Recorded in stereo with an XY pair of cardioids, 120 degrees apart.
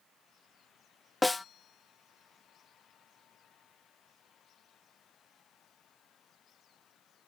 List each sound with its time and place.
1.2 s a snare drum: 10° left